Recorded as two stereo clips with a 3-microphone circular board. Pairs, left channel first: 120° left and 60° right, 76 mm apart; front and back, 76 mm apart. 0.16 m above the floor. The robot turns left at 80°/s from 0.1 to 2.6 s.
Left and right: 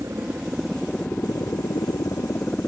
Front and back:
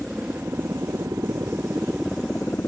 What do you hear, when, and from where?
0.0 s a helicopter: 105° right; by 2.7 s 55° left